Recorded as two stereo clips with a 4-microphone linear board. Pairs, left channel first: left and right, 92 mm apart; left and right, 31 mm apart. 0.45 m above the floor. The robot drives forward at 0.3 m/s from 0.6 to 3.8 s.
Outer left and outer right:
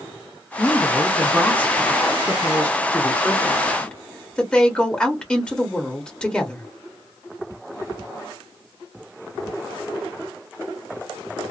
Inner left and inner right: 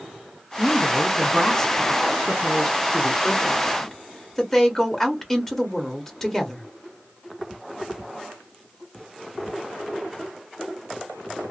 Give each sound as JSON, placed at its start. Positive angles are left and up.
{"t": 0.6, "sound": "a woman speaking", "side_deg": 15, "distance_m": 0.7}